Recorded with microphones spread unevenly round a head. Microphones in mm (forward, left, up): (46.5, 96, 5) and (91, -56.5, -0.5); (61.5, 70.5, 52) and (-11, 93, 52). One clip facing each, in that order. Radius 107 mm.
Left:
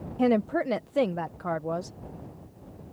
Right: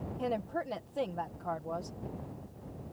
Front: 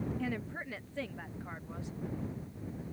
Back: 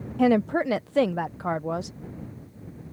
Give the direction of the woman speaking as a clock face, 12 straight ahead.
7 o'clock.